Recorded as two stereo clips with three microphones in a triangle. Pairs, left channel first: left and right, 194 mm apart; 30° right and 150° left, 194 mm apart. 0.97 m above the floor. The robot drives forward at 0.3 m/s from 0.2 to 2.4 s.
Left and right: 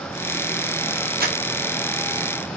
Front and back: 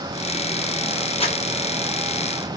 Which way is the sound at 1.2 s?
80° right.